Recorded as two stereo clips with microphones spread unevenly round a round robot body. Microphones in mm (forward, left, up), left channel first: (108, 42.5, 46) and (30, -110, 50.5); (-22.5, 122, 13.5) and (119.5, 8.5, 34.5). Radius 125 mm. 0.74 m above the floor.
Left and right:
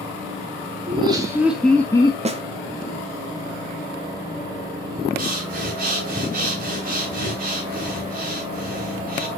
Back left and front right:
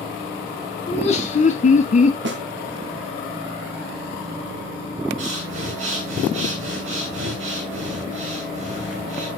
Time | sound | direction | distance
0.9 | laughter | 175° right | 1.8 m
2.2 | a snare drum | 65° right | 1.4 m
5.2 | breathing | 80° right | 3 m